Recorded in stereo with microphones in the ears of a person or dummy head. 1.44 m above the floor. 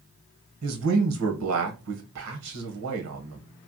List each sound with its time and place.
0.6 s a man speaking: 80° right, 1.1 m